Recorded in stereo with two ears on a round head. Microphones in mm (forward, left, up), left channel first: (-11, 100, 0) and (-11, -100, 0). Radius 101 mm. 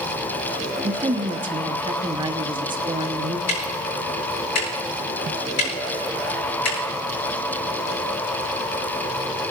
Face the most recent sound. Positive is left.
turn(degrees=65)  # may be behind; listen again after turning